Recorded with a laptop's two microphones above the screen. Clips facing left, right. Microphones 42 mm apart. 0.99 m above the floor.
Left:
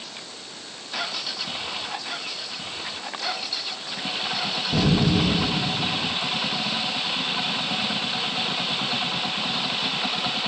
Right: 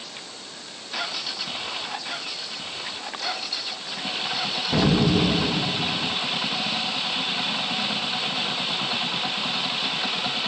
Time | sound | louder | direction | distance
4.7 | an explosion | right 1 dB | 50° right (ahead or behind) | 0.9 m